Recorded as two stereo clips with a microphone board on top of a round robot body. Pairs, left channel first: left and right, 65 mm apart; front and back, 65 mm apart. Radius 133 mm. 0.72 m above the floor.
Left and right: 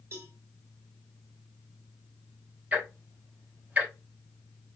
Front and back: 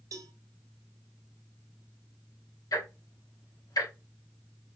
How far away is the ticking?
About 4 m.